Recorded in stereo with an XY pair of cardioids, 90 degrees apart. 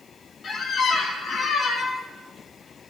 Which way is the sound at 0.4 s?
65° left.